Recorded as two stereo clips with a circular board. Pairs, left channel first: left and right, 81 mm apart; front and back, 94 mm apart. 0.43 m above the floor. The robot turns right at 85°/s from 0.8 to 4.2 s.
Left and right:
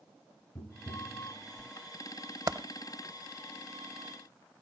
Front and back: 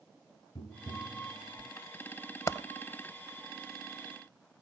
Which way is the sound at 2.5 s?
55° right.